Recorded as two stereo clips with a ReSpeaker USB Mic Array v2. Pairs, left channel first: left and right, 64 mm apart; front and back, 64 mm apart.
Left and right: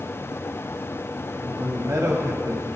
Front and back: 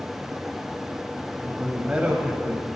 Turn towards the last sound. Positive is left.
turn(degrees=-110)